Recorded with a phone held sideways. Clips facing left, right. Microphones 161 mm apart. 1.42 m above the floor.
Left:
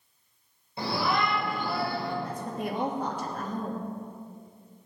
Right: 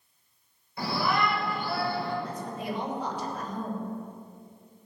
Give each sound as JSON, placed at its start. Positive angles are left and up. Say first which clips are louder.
{"t": 0.8, "sound": "a shout", "louder": "even", "side_deg": 25, "distance_m": 4.5}
{"t": 2.2, "sound": "a woman speaking", "louder": "left 1 dB", "side_deg": 50, "distance_m": 2.5}